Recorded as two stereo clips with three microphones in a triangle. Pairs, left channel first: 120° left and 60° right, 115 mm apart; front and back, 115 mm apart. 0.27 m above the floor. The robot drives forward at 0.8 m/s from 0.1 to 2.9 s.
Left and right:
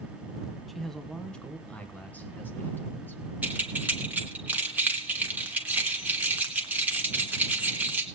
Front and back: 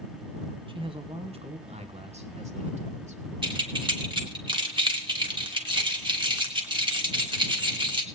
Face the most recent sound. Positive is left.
turn(degrees=-135)